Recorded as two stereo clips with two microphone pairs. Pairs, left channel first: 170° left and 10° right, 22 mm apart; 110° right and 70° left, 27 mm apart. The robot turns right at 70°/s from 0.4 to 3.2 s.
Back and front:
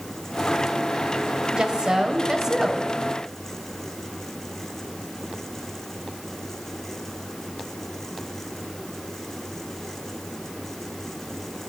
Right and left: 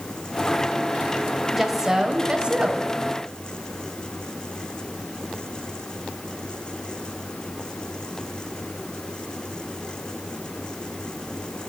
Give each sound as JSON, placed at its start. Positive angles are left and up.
{"t": 1.5, "sound": "a woman speaking", "azimuth_deg": -20, "distance_m": 1.2}